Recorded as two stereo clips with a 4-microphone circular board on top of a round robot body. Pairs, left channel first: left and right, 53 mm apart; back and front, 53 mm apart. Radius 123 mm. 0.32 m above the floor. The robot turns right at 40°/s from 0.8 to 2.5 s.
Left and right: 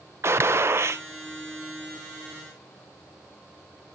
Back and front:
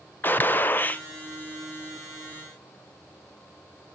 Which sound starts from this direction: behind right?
A gunshot, at 0.2 s.